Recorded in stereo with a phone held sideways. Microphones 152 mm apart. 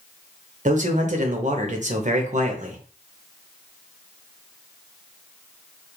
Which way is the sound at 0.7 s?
50° right (ahead or behind).